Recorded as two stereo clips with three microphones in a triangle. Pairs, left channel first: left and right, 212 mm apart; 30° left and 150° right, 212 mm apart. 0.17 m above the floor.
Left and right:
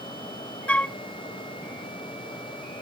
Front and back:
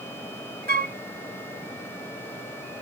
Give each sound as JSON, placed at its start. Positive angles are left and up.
{"t": 0.7, "sound": "a flute", "azimuth_deg": 175}